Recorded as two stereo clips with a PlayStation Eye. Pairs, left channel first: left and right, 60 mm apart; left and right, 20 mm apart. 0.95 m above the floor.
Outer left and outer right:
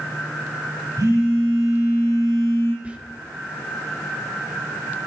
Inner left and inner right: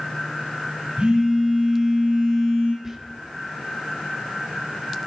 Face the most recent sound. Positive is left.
turn(degrees=-20)  # may be behind; listen again after turning